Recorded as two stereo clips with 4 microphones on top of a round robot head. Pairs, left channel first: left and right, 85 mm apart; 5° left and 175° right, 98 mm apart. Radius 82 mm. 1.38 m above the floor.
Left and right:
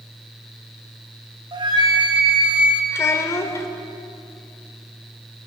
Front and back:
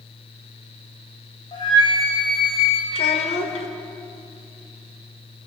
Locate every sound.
1.5 s a flute: 50° right, 4 m
2.9 s a child speaking: 30° left, 3 m